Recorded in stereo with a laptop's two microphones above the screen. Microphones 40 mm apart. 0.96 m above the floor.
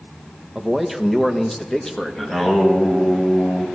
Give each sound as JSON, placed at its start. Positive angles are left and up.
{"t": 0.6, "sound": "a man speaking", "side_deg": -15, "distance_m": 0.9}
{"t": 2.2, "sound": "singing", "side_deg": 10, "distance_m": 2.0}